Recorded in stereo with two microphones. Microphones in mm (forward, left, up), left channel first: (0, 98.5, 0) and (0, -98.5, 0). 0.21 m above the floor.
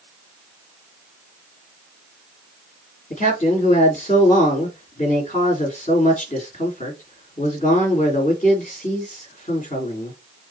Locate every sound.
3.1 s a man speaking: 40° left (ahead or behind), 3 m